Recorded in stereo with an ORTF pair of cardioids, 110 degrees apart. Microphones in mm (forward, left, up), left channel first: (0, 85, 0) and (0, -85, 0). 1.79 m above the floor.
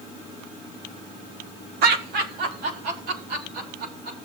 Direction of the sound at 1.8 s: 70° right.